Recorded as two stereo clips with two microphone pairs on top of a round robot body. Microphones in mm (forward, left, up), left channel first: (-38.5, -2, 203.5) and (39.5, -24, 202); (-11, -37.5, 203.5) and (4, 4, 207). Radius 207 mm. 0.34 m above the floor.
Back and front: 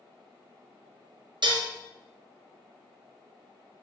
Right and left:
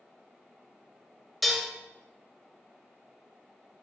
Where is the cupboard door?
I don't hear a cupboard door.